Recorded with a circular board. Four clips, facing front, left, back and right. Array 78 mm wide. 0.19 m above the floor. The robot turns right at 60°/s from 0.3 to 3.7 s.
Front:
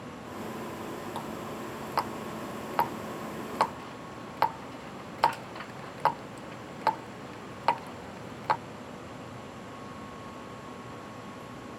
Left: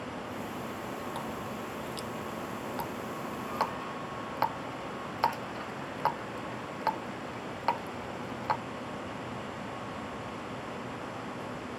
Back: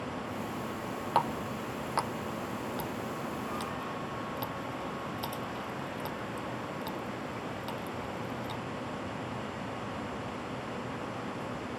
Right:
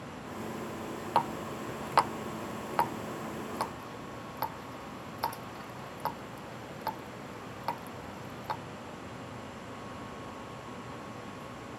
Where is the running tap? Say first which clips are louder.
Right 6 dB, back 6 dB; 135° right; by 8.6 s 20° left.